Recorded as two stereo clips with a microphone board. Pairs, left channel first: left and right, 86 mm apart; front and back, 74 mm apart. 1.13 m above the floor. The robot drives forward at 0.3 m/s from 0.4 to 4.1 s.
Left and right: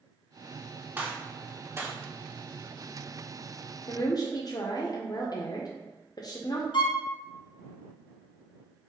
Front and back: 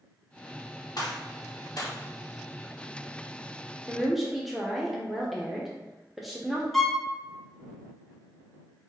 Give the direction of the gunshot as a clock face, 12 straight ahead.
1 o'clock.